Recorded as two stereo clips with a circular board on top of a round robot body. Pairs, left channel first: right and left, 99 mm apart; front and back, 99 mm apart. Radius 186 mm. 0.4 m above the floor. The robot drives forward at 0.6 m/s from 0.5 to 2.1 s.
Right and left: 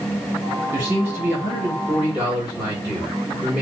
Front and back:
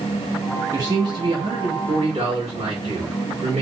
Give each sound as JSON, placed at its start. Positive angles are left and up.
{"t": 0.7, "sound": "a man speaking", "azimuth_deg": 145, "distance_m": 1.1}